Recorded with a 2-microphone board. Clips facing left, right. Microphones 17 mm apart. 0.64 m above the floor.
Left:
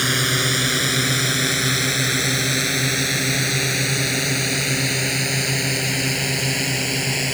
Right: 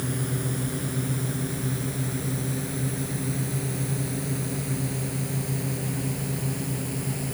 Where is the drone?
70° left (ahead or behind); by 7.3 s 65° left (ahead or behind).